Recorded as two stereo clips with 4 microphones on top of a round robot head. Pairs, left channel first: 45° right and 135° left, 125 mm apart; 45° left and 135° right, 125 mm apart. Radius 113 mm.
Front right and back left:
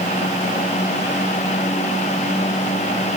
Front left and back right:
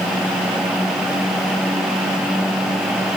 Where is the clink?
I don't hear a clink.